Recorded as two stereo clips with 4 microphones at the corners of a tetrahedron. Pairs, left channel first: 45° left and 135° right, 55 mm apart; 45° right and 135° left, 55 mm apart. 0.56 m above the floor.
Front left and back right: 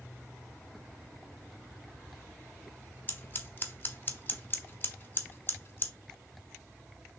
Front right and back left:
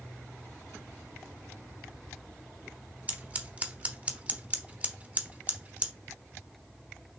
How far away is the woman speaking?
I don't hear a woman speaking.